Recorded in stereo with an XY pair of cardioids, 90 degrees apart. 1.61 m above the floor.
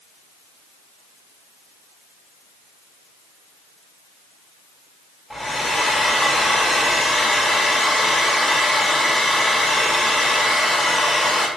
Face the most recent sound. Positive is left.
turn(degrees=15)